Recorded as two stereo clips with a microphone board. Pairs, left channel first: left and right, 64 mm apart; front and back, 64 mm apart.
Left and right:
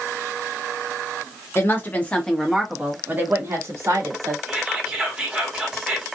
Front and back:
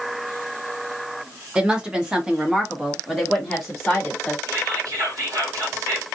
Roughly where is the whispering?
Behind.